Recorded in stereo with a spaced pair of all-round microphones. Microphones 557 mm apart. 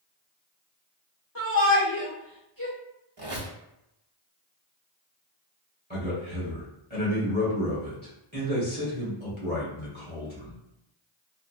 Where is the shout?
35° left (ahead or behind), 2.0 m.